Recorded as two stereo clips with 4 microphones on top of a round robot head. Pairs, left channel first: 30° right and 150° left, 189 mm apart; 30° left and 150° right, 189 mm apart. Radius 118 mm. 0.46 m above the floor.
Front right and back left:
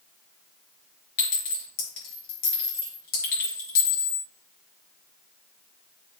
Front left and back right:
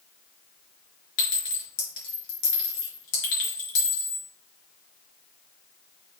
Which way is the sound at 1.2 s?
15° left.